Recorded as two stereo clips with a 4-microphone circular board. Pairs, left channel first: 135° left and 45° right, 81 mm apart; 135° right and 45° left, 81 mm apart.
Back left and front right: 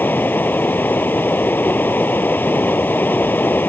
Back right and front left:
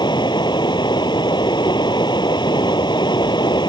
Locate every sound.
0.0 s running water: 160° right